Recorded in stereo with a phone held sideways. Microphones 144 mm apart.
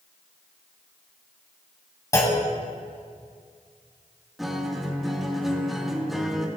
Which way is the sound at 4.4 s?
Centre (ahead or behind).